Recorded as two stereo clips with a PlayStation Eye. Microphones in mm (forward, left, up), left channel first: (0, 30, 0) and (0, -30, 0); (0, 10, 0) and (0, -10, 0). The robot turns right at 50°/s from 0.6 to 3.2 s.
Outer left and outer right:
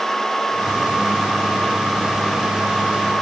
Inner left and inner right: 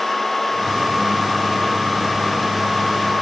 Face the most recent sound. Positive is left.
No sound to turn to.